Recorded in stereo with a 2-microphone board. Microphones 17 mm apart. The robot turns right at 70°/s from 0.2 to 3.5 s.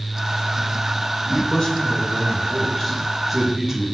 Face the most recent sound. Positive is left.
turn(degrees=-155)